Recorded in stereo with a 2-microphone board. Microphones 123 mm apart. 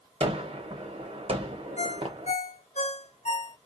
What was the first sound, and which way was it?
A gunshot, 50° right (ahead or behind).